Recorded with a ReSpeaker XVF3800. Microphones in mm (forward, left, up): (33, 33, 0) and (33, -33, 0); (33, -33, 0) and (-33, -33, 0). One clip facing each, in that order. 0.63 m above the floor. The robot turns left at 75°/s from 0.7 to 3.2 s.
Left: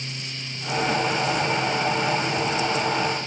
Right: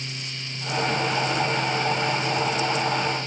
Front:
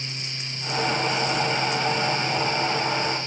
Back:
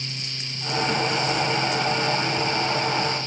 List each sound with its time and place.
Only background noise.